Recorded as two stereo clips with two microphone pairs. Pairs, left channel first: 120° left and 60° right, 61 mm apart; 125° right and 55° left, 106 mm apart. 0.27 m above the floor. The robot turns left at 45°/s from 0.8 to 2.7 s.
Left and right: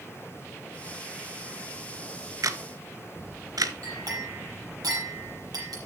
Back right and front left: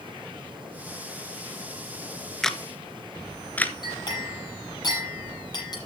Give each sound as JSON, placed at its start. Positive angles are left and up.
{"t": 2.4, "sound": "a camera shutter", "azimuth_deg": -35, "distance_m": 0.7}
{"t": 3.8, "sound": "a clink", "azimuth_deg": -75, "distance_m": 6.0}